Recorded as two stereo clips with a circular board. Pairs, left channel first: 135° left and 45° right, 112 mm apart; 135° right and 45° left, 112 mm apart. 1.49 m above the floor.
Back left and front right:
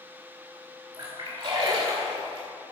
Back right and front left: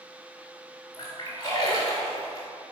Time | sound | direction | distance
0.9 | a splash | 80° right | 3.5 m